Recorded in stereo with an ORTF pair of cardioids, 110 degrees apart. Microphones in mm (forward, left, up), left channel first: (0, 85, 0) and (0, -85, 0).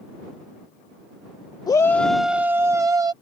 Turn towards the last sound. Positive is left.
turn(degrees=-25)